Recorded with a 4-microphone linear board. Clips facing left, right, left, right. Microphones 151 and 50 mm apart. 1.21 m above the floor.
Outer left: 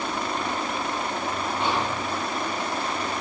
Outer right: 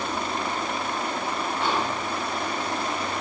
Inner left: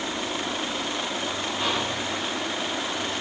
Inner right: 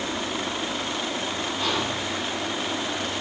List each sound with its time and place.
1.6 s whispering: 25° left (ahead or behind), 4.5 m